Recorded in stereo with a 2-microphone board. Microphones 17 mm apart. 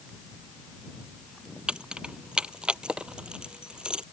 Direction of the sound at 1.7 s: 80° right.